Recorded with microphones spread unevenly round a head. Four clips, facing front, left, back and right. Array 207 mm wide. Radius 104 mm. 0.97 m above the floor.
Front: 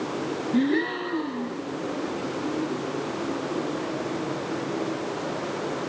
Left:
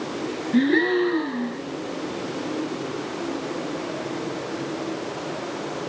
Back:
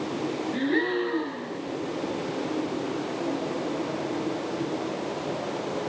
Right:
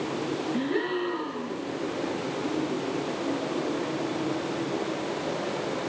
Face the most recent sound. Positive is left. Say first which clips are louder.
# left 11 dB, front 3 dB
turn(degrees=80)